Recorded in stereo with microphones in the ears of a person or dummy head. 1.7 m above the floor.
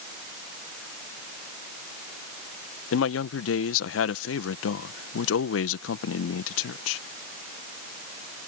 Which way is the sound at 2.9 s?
75° left (ahead or behind).